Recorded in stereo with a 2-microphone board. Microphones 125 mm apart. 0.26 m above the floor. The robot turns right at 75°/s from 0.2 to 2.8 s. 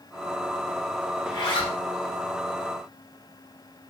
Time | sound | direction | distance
1.2 | a zipper | 55° left | 0.7 m